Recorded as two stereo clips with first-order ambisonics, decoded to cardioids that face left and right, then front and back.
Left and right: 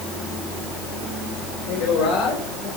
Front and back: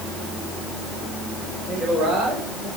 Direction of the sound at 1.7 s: 70° left.